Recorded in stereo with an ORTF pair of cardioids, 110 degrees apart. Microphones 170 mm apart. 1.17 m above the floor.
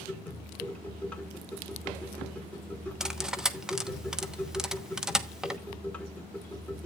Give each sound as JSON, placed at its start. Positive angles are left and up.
{"t": 0.0, "sound": "a machine running", "azimuth_deg": 10, "distance_m": 1.8}
{"t": 3.0, "sound": "cutlery clinking", "azimuth_deg": -5, "distance_m": 1.0}